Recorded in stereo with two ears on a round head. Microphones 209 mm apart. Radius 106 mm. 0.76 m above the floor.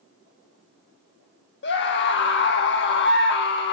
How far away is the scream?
About 1.2 m.